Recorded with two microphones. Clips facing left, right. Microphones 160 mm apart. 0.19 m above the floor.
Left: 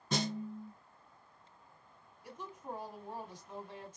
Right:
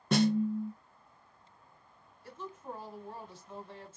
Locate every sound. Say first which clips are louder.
0.1 s a snare drum: right 10 dB; 65° right (ahead or behind), 0.5 m
2.2 s a woman speaking: right 1 dB; 15° left (ahead or behind), 1.2 m